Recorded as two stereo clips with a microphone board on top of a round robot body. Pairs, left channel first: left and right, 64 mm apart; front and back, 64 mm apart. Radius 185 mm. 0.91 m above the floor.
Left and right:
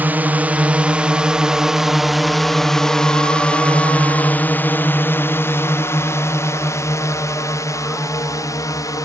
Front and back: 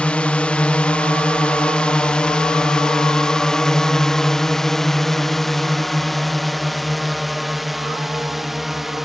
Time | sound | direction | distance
0.0 | a drone | 55° right | ?